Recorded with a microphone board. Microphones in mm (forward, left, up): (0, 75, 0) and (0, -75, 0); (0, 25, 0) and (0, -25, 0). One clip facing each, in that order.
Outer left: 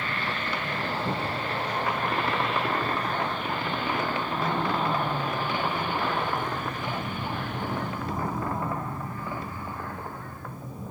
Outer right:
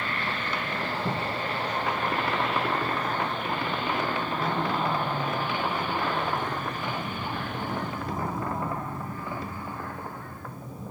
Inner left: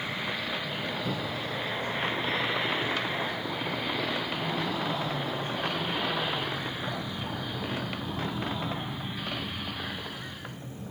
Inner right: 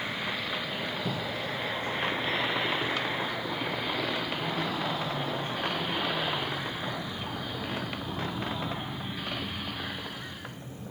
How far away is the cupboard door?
About 5 m.